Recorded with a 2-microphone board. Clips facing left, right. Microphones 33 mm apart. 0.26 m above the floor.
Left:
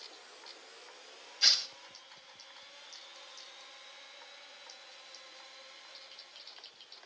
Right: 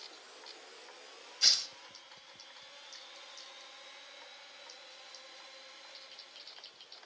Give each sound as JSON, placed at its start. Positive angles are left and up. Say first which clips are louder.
{"t": 1.4, "sound": "tearing paper", "louder": "left 2 dB", "side_deg": 15, "distance_m": 1.1}